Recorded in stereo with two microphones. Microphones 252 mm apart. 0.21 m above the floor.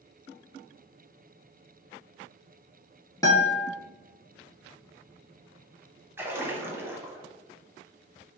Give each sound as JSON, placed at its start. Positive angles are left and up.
{"t": 3.2, "sound": "a guitar", "side_deg": 15, "distance_m": 0.8}
{"t": 6.2, "sound": "a splash", "side_deg": -10, "distance_m": 0.5}